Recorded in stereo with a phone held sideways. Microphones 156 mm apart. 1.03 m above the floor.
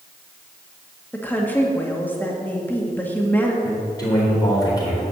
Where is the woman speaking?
10° left (ahead or behind), 1.9 m.